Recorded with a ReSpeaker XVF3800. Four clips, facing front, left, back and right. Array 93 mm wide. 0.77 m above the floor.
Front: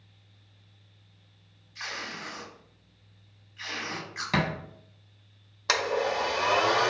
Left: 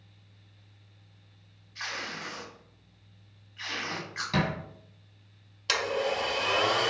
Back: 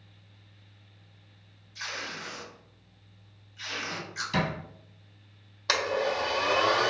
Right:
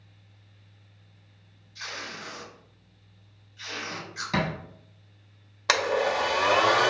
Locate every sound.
1.8 s tape being pulled: 55° left, 1.6 m
4.3 s a thud: 10° right, 1.4 m
5.7 s a blender: 85° right, 0.5 m